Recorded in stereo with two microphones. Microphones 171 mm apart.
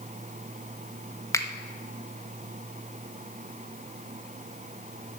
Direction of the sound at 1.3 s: 20° left (ahead or behind).